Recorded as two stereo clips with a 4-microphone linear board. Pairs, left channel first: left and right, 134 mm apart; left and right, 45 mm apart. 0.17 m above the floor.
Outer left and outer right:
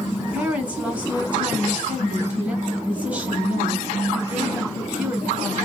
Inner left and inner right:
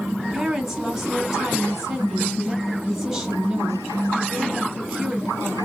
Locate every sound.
0.2 s a woman speaking: 10° right (ahead or behind), 1.8 m